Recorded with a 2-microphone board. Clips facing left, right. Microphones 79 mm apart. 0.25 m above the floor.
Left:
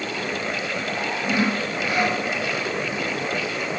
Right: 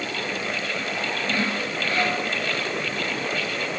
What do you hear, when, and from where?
1.2 s sawing: 15° left (ahead or behind), 3.5 m